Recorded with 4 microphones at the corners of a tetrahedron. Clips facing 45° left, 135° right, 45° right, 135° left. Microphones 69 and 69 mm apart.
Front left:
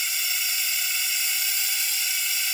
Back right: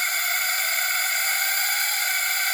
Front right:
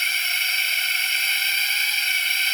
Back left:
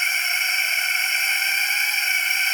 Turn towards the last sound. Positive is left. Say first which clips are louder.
# back right 7 dB, back left 2 dB
turn(degrees=-160)